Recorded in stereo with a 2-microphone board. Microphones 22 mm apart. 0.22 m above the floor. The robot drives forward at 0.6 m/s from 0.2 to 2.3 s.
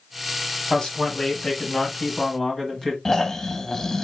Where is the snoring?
20° left (ahead or behind), 0.6 m.